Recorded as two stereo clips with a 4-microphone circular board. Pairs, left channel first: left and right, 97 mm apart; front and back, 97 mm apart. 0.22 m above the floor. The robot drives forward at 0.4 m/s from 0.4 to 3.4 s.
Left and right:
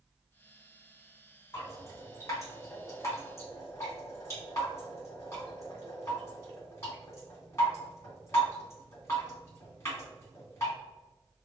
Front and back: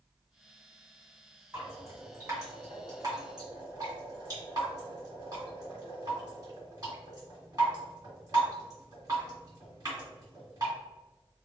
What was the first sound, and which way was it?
Dripping, 120° left.